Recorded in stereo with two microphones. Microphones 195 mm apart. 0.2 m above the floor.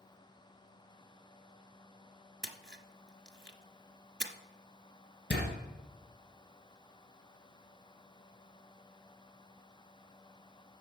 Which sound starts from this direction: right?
A splash, at 2.4 s.